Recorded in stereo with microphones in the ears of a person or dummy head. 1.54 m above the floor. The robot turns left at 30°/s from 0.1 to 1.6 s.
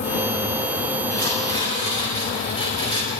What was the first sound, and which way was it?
Tearing paper, 15° left (ahead or behind).